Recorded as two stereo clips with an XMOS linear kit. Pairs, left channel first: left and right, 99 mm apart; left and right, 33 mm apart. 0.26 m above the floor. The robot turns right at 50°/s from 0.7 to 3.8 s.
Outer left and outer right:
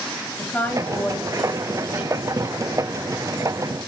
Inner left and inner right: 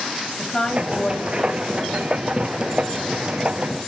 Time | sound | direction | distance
0.4 | a woman speaking | 145° left | 1.6 m